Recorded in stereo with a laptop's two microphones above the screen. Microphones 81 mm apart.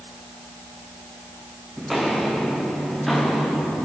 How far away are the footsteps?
About 3.5 m.